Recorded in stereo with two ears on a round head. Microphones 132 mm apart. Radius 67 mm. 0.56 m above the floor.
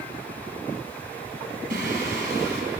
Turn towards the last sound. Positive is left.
turn(degrees=-65)  # may be behind; listen again after turning